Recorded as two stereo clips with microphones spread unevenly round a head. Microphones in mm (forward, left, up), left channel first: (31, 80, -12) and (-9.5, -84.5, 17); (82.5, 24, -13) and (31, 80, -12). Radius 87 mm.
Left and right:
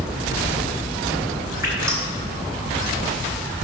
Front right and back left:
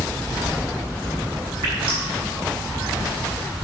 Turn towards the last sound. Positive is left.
turn(degrees=180)